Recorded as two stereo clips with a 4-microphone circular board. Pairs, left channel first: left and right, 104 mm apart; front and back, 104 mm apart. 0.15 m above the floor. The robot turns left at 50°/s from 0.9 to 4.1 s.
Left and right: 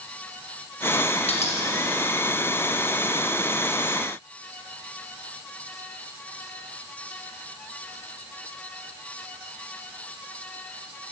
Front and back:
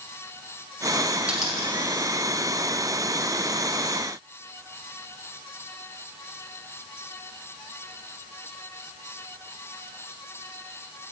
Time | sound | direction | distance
1.3 | a dropped coin | 100° left | 2.5 m